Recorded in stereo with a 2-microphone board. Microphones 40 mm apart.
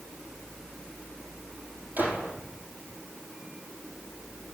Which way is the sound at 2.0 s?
50° right (ahead or behind).